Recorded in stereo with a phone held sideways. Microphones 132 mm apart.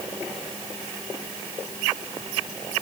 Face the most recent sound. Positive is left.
No sound to turn to.